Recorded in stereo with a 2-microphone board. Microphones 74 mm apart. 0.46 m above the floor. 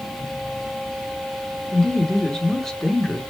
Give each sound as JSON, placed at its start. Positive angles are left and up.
{"t": 1.7, "sound": "a woman speaking", "side_deg": 5, "distance_m": 0.8}